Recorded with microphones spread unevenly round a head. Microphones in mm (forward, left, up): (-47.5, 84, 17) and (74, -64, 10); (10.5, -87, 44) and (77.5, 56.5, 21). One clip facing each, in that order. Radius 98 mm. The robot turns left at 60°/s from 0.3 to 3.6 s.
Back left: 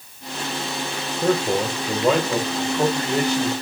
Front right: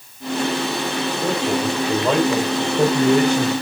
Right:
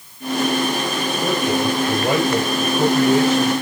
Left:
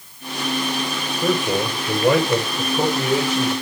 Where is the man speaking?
115° left, 4.5 m; by 3.5 s 25° right, 4.5 m.